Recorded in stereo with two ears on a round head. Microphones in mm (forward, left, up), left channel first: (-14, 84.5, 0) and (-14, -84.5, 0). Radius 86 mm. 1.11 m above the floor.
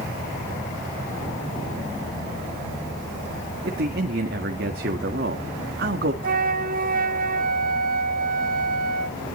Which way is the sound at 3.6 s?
50° right (ahead or behind).